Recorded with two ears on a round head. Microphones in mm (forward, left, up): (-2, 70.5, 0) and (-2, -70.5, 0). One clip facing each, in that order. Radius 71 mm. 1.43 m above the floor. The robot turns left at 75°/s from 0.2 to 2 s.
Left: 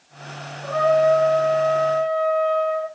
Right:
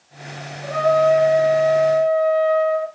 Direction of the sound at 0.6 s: 15° right.